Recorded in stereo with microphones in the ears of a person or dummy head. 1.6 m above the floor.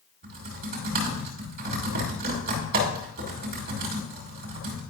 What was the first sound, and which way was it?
Typing on a keyboard, 55° right (ahead or behind).